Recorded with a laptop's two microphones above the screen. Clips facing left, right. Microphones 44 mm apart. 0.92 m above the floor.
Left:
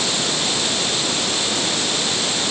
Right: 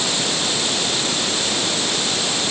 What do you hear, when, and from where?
Only background noise.